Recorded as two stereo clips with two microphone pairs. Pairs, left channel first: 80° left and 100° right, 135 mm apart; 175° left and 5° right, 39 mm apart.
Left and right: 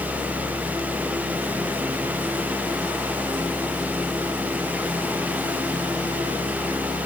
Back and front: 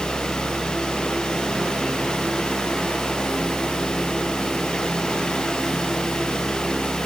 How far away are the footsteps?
No footsteps in this recording.